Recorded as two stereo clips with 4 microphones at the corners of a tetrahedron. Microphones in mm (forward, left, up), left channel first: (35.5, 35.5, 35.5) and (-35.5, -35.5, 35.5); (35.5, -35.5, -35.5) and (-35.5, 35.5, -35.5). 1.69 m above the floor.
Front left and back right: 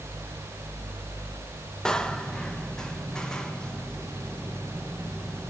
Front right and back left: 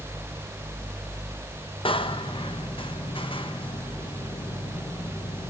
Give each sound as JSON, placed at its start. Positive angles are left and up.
{"t": 1.9, "sound": "a door slam", "azimuth_deg": -35, "distance_m": 1.3}